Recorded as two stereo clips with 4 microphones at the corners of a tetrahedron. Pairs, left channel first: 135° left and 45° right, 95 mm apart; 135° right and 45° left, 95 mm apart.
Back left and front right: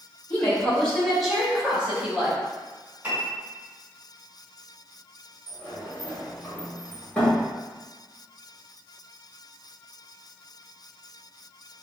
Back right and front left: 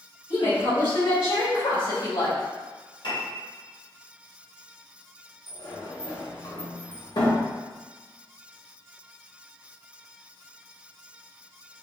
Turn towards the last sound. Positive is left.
turn(degrees=-150)